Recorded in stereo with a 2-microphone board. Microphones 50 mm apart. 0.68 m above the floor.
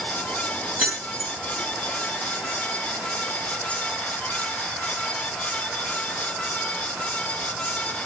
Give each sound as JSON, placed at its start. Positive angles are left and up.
{"t": 0.8, "sound": "keys jangling", "side_deg": -30, "distance_m": 6.5}